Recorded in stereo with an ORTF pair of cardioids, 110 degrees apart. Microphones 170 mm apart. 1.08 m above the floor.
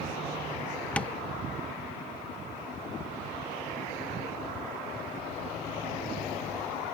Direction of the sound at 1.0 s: 10° left.